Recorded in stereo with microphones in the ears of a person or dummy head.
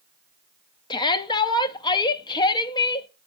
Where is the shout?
25° left (ahead or behind), 0.7 m.